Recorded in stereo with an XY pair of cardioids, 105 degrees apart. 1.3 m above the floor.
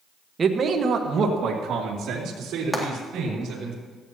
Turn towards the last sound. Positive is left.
turn(degrees=0)